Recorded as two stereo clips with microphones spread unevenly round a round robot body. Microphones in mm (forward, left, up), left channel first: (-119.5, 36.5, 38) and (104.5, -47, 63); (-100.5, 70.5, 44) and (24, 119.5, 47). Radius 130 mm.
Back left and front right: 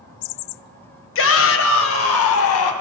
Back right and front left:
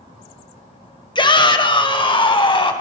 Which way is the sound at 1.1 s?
150° left.